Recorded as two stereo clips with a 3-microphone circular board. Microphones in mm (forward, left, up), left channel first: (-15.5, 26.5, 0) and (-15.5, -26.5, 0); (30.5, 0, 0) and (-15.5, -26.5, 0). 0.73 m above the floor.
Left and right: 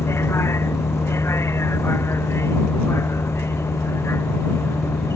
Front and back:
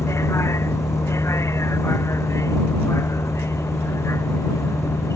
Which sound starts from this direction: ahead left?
A vehicle, at 0.0 s.